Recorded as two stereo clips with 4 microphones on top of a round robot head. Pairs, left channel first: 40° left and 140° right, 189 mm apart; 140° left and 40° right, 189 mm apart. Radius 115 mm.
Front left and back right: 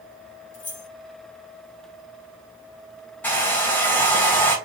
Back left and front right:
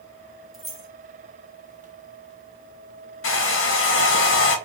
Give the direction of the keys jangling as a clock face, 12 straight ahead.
10 o'clock.